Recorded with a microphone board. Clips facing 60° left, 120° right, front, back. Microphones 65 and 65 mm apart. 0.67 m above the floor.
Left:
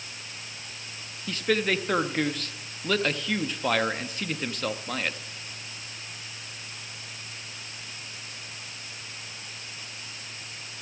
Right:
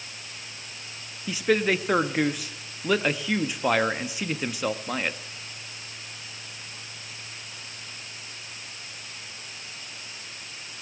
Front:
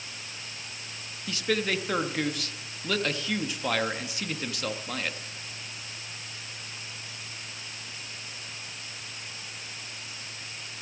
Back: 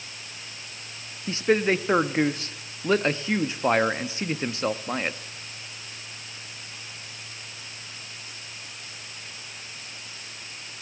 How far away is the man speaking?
About 0.5 m.